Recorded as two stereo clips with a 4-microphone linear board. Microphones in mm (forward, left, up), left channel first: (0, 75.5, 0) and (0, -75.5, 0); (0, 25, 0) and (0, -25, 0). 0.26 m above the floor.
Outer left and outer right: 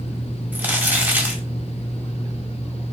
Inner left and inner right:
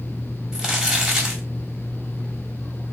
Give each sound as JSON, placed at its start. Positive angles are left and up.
{"t": 0.5, "sound": "crumpling", "side_deg": -10, "distance_m": 1.2}